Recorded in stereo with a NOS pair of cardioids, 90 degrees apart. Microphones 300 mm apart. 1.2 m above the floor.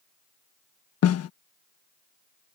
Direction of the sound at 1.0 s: 60° left.